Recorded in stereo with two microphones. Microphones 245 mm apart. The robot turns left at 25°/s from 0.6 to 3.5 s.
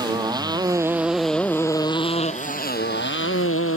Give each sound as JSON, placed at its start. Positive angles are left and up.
{"t": 0.0, "sound": "a motorcycle", "azimuth_deg": -165}